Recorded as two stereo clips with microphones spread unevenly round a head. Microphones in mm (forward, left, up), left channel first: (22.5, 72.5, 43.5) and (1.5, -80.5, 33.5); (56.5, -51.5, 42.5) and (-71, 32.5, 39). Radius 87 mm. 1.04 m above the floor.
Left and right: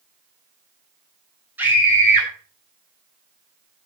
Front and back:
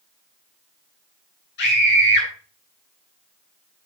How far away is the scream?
About 10 m.